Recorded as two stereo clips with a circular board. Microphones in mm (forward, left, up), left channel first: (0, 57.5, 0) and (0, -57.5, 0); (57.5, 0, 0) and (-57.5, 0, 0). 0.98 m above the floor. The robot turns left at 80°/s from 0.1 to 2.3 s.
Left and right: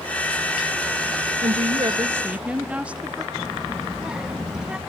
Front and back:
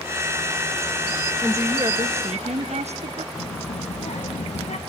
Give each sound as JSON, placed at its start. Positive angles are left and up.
{"t": 1.4, "sound": "a woman speaking", "azimuth_deg": -100, "distance_m": 0.5}
{"t": 3.3, "sound": "a child speaking", "azimuth_deg": -10, "distance_m": 1.0}